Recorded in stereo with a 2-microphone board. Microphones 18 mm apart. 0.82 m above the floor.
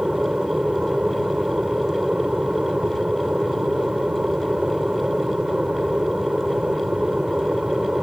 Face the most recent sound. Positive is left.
turn(degrees=-65)  # may be behind; listen again after turning